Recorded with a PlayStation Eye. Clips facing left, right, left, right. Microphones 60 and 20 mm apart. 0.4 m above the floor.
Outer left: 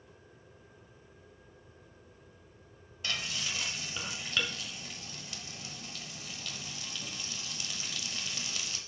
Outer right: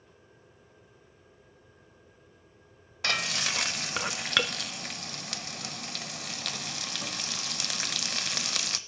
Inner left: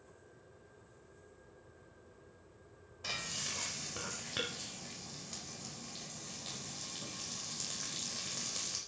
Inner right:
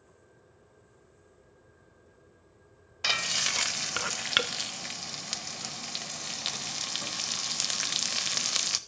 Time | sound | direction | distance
3.0 | frying | 70° right (ahead or behind) | 0.6 m